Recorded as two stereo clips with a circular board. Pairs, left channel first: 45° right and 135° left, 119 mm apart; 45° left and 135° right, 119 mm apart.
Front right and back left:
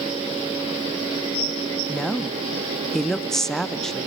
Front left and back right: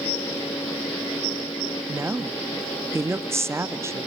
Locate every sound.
1.9 s a woman speaking: 125° right, 0.5 m